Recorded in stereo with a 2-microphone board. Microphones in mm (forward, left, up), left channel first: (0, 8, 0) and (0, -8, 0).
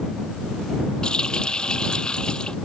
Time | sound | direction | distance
1.0 | a running tap | 65° left (ahead or behind) | ?